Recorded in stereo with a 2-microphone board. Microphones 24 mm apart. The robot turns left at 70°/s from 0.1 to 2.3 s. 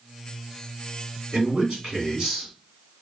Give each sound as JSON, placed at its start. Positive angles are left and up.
{"t": 1.3, "sound": "a man speaking", "azimuth_deg": -90, "distance_m": 2.5}